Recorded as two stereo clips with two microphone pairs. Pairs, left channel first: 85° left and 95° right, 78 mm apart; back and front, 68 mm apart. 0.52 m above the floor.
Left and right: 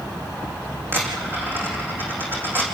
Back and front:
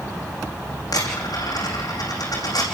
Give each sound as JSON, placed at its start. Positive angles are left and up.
{"t": 0.9, "sound": "a dropped coin", "azimuth_deg": -160, "distance_m": 6.0}